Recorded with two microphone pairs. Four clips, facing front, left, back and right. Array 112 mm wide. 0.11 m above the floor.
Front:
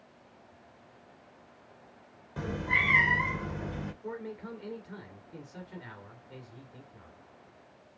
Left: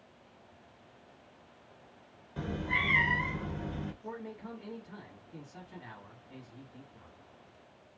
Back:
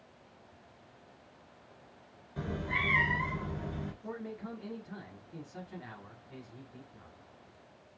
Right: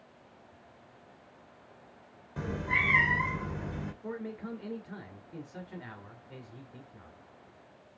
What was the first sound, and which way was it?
A cat meowing, 25° right.